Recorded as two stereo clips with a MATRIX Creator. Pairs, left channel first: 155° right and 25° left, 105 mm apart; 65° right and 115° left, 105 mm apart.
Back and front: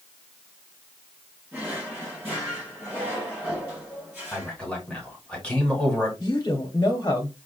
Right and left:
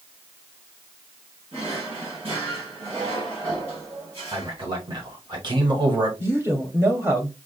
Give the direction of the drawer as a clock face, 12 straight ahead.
9 o'clock.